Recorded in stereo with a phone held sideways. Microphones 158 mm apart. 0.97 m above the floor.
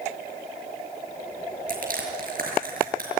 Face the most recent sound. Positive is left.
turn(degrees=-60)  # may be behind; listen again after turning